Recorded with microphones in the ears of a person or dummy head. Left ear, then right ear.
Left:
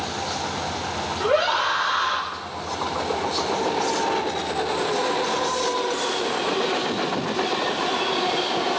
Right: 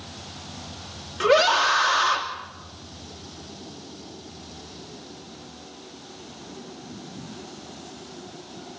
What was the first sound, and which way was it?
A scream, 80° right.